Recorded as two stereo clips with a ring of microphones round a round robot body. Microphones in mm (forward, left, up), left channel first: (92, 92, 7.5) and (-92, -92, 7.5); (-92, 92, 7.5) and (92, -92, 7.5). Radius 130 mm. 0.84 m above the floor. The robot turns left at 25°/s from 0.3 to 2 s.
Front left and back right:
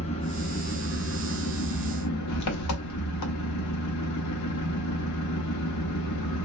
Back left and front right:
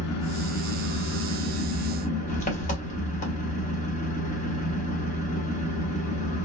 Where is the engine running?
115° left, 0.8 m; by 6.5 s 70° left, 0.8 m.